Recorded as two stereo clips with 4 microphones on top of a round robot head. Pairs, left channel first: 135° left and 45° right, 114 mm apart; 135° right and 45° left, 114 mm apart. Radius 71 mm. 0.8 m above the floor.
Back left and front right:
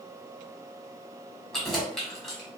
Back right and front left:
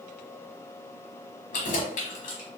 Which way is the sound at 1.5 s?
140° right.